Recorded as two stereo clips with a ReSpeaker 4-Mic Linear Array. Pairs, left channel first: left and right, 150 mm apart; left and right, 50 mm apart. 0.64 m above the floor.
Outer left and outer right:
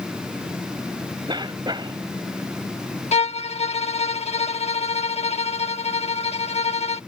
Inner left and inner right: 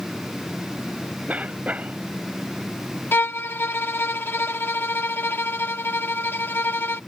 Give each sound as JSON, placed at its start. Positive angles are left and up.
{"t": 1.3, "sound": "a cough", "side_deg": -30}
{"t": 3.1, "sound": "a violin", "side_deg": 45}